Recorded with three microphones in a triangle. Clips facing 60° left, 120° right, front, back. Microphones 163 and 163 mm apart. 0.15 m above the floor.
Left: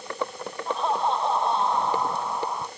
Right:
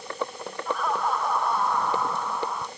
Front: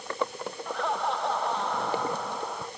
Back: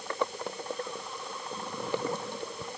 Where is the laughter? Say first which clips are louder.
Left 2 dB, front 8 dB; 5° right; by 2.7 s 10° right.